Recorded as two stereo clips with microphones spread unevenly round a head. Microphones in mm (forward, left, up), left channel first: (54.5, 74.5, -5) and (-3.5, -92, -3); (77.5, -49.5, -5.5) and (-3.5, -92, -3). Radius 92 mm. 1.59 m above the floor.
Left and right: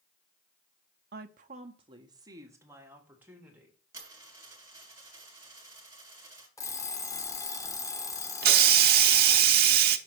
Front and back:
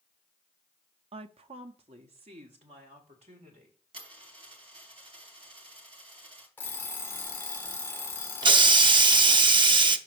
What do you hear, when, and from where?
1.1 s a woman speaking: 145° right, 0.6 m; by 3.8 s 165° left, 1.8 m
3.9 s a dropped coin: 175° left, 2.5 m
6.6 s an alarm clock: 45° left, 0.6 m
8.4 s a hiss: 135° right, 0.7 m